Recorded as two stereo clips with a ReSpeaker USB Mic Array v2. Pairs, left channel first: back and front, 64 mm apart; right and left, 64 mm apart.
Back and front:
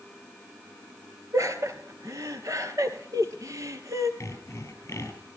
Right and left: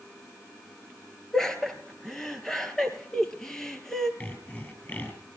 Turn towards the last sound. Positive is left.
turn(degrees=-145)